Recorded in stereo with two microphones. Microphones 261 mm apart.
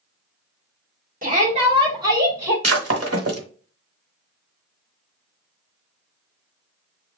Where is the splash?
No splash in this recording.